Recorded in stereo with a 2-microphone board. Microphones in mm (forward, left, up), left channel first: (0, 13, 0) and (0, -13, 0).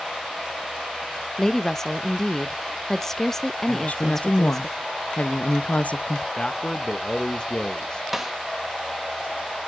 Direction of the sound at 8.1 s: 10° right (ahead or behind).